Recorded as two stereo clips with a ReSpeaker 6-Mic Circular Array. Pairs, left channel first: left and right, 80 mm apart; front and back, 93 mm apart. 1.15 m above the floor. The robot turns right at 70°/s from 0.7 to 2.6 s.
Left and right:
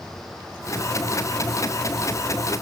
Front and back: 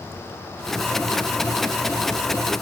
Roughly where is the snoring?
I don't hear snoring.